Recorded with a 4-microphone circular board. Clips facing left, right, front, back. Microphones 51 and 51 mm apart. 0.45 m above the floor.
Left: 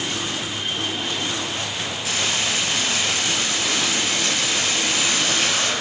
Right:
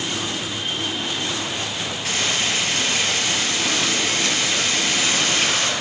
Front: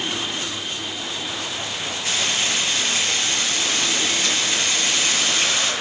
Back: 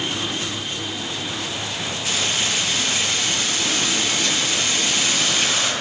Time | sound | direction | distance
2.0 | frying | 50° right | 9.5 m